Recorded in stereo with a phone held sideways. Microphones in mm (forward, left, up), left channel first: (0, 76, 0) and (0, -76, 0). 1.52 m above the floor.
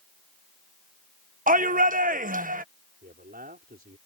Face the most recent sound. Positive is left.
turn(degrees=-85)